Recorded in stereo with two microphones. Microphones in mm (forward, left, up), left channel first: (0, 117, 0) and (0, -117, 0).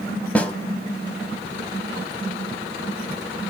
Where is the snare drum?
5° left (ahead or behind), 1.0 m.